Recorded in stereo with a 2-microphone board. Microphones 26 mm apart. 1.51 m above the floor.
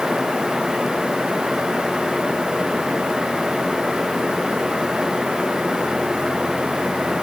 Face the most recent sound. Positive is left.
No sound to turn to.